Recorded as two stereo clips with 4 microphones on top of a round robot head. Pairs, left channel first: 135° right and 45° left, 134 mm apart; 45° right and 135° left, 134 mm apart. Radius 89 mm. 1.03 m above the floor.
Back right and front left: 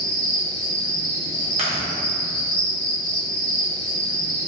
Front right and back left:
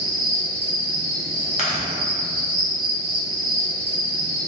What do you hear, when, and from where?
0.0 s an insect: 110° left, 1.6 m
1.6 s chewing: straight ahead, 0.5 m